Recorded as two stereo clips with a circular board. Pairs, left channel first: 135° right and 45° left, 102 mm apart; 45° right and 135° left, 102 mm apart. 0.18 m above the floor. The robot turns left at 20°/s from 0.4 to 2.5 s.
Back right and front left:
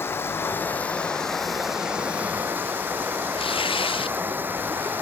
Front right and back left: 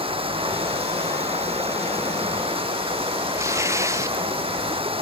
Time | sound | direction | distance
0.0 | running water | 155° left | ?
3.4 | tearing paper | 165° right | ?